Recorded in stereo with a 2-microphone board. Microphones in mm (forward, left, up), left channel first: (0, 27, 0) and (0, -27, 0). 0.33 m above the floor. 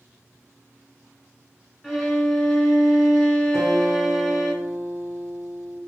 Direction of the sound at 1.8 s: 5° right (ahead or behind).